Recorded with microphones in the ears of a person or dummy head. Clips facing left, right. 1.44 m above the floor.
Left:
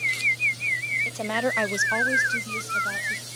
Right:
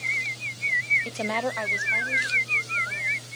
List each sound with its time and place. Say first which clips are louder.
1.1 s a woman speaking: left 2 dB; 25° right (ahead or behind), 0.7 m; by 3.2 s 75° left (ahead or behind), 2.5 m